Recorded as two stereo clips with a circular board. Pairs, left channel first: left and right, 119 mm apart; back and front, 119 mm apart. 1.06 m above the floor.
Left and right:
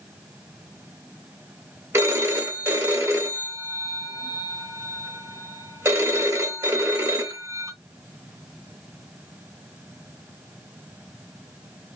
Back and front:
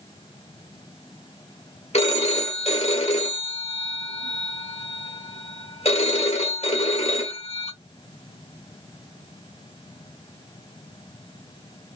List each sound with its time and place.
1.9 s a phone ringing: 155° right, 1.1 m